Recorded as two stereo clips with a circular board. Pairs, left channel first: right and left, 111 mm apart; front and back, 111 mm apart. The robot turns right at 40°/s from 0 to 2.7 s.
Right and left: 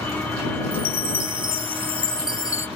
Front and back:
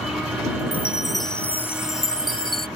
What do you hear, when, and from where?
0.7 s a chime: 105° right; by 2.7 s 30° right